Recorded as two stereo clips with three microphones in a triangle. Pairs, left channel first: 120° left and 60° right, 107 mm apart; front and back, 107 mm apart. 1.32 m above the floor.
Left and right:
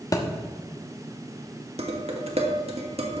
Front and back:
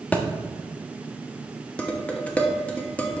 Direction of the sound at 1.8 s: 80° right.